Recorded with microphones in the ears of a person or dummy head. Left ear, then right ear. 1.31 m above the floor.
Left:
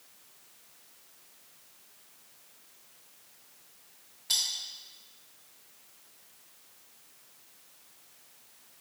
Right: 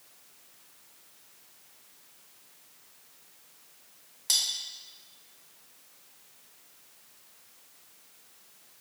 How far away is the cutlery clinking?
About 1.1 m.